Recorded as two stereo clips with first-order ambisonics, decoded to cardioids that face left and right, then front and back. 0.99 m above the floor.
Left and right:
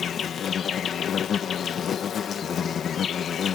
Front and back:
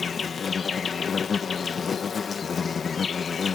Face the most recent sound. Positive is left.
turn(degrees=55)